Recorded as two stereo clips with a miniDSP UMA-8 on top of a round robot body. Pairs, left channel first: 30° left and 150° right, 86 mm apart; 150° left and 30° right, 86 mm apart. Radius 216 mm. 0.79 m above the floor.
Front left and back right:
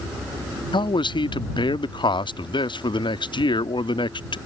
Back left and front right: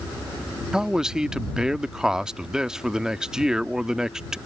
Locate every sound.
0.7 s a man speaking: 50° left